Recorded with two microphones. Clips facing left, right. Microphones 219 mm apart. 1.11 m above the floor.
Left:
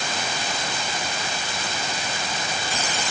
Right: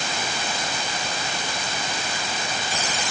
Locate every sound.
Only background noise.